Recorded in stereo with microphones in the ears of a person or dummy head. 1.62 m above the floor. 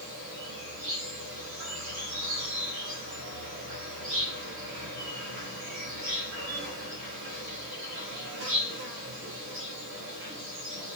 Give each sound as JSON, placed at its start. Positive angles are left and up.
{"t": 0.0, "sound": "an insect", "side_deg": -70, "distance_m": 4.0}